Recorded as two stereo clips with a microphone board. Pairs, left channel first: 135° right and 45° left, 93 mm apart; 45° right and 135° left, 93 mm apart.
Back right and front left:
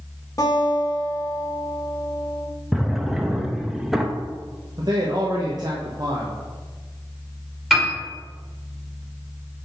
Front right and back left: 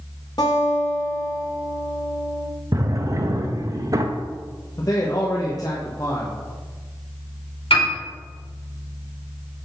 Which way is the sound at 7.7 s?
40° right.